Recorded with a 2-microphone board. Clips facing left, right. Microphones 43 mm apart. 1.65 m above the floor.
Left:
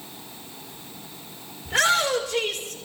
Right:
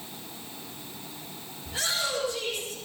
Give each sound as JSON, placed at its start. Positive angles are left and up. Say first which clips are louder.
{"t": 1.6, "sound": "a shout", "louder": "left 10 dB", "side_deg": 85, "distance_m": 5.5}